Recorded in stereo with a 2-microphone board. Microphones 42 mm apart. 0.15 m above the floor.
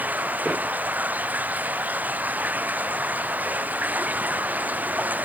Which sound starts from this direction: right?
Running water, at 0.0 s.